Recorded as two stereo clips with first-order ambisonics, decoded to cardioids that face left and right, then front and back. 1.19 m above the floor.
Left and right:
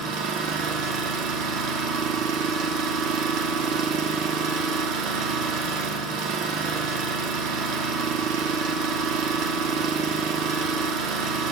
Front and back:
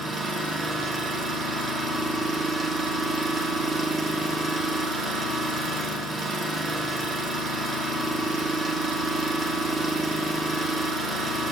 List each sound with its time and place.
0.0 s an engine running: 105° right, 0.9 m